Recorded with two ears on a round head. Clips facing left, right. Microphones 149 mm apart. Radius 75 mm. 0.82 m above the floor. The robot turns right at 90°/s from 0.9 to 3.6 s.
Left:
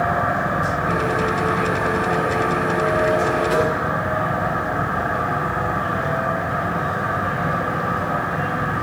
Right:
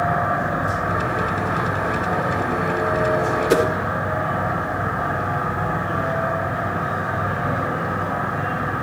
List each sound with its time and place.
3.5 s a whoosh: 60° right (ahead or behind), 1.4 m; by 3.7 s 65° right (ahead or behind), 1.4 m